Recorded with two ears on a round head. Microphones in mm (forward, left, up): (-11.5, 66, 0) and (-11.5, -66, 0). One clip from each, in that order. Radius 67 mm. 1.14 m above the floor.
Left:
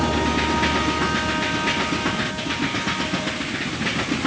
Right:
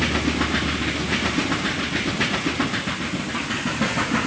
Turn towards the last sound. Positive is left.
No sound to turn to.